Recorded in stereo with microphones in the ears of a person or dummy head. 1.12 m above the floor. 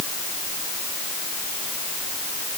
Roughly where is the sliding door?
No sliding door in this recording.